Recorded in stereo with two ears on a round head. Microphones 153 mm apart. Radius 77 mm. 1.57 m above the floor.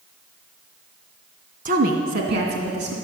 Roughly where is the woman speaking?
Right.